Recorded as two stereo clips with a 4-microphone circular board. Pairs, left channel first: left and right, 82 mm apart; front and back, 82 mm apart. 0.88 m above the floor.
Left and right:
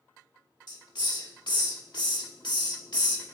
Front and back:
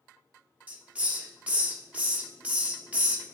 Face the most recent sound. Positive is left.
turn(degrees=110)